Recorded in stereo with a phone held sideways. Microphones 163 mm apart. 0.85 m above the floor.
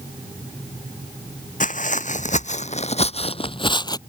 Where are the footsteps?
50° left (ahead or behind); by 4.0 s 25° left (ahead or behind).